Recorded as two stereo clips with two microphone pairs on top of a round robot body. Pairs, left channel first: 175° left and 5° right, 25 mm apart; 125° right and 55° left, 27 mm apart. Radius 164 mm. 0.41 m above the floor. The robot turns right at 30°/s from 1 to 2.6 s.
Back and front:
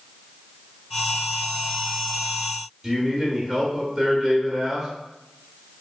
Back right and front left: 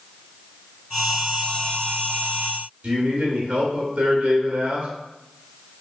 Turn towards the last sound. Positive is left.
turn(degrees=70)